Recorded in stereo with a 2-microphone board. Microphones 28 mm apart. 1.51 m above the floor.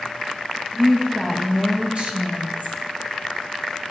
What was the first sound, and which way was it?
A woman speaking, 15° right (ahead or behind).